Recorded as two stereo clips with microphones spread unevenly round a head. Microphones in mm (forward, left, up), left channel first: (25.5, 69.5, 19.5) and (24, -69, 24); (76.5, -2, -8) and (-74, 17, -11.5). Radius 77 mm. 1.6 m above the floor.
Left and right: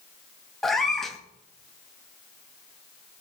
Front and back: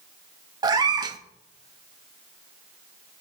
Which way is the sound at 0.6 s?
Straight behind.